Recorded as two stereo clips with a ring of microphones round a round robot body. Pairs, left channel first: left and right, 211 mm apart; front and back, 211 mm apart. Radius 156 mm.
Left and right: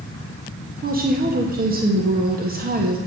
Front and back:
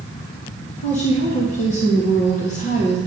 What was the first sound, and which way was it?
A woman speaking, 50° right.